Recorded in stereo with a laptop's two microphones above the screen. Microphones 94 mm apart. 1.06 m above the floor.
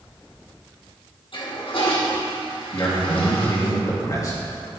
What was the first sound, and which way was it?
A toilet flushing, 70° left (ahead or behind).